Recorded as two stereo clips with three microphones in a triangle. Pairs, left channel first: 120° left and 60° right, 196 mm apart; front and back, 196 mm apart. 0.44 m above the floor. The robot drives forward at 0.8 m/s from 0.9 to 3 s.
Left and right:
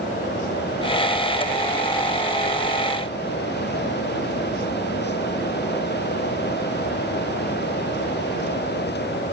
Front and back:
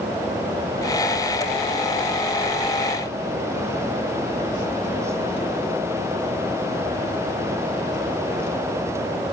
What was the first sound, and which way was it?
Only background noise.